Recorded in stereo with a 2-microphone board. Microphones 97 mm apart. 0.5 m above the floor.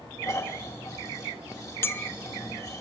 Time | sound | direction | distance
0.2 | snoring | 35° left (ahead or behind) | 2.5 m
1.8 | a clink | 25° left (ahead or behind) | 0.7 m